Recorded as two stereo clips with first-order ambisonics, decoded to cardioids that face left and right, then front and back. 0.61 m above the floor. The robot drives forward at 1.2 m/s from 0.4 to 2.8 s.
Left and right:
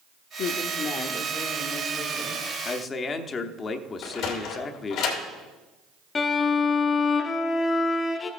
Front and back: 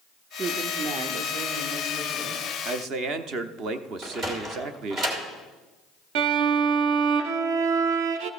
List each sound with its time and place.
0.4 s a woman speaking: 115° left, 0.9 m; by 2.4 s 165° left, 3 m
2.6 s a man speaking: 135° left, 0.7 m; by 5.0 s 150° left, 0.8 m
4.0 s a sliding door: 125° left, 2.5 m
6.2 s a violin: 160° left, 0.7 m